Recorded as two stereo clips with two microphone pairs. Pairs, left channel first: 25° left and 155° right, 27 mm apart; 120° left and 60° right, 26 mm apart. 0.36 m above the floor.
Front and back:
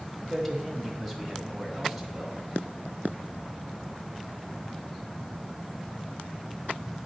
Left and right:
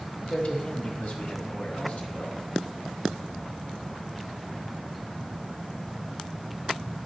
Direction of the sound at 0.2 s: 120° left.